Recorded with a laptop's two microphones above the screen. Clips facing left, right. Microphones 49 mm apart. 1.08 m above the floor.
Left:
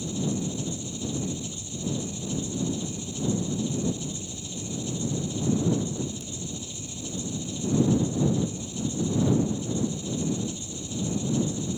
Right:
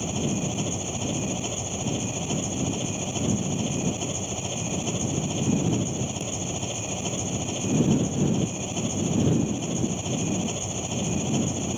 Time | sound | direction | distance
0.0 | an engine running | 60° right (ahead or behind) | ?